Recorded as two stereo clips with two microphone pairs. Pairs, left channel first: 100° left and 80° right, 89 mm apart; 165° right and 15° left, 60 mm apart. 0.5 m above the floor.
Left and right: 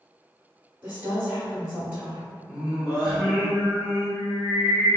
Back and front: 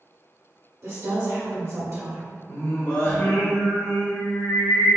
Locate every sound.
0.8 s a woman speaking: 10° right, 1.7 m
2.5 s singing: 150° right, 1.4 m